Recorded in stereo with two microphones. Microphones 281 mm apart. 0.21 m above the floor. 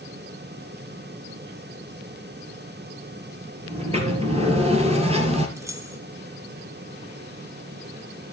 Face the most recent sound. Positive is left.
turn(degrees=-10)  # may be behind; listen again after turning